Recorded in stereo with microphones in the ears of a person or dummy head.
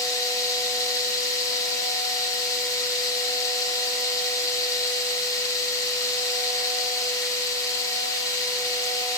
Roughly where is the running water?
Centre.